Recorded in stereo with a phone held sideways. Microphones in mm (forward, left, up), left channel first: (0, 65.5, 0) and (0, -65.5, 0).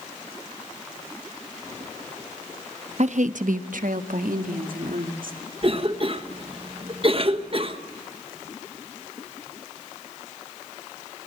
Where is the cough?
45° right (ahead or behind), 1.1 m.